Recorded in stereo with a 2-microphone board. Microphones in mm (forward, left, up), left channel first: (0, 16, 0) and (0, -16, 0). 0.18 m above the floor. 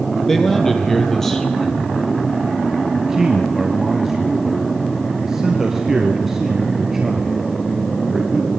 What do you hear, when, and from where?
0.3 s a man speaking: 10° left (ahead or behind), 5.5 m
3.0 s a man speaking: 10° right (ahead or behind), 2.5 m